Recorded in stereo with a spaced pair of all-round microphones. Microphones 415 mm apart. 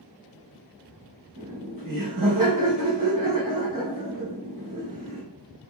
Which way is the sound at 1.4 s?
50° right (ahead or behind).